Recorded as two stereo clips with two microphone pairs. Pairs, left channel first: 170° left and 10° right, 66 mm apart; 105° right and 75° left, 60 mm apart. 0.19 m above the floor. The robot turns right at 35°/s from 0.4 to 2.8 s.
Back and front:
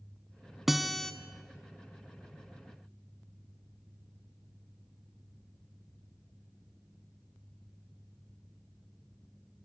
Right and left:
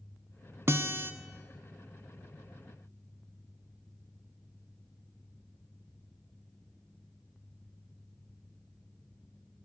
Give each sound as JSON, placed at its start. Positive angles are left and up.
{"t": 0.7, "sound": "a guitar", "azimuth_deg": 70, "distance_m": 0.6}